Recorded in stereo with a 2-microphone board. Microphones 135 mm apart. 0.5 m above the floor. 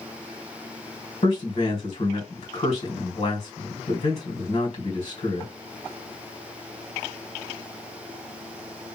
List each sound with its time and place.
1.2 s a man speaking: 55° left (ahead or behind), 1.7 m